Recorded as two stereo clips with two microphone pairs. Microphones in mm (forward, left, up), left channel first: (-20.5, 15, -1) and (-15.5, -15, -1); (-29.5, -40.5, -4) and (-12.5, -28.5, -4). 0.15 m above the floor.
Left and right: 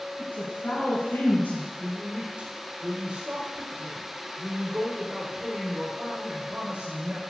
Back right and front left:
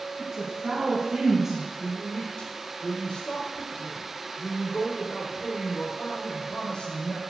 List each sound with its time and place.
0.2 s a woman speaking: 95° left, 4 m; by 1.6 s 115° left, 4 m
1.8 s a woman speaking: 125° right, 4.5 m